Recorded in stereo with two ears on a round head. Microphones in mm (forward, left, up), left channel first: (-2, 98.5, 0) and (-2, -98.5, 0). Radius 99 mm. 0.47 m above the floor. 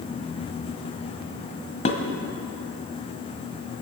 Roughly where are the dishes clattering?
Left.